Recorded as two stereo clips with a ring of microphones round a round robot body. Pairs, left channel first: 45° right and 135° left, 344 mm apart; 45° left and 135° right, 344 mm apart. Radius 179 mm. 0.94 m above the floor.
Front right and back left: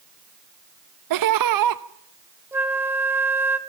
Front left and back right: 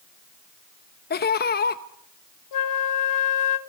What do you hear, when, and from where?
1.1 s laughter: 110° left, 0.9 m
2.5 s a flute: 50° left, 1.5 m